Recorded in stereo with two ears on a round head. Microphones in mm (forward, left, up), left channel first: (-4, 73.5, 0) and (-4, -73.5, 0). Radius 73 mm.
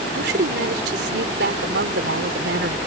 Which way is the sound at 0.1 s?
70° right (ahead or behind).